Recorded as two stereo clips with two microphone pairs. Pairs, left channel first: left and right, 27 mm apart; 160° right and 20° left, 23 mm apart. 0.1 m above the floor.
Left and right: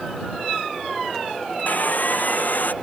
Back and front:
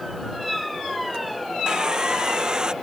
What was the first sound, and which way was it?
Sawing, 80° left.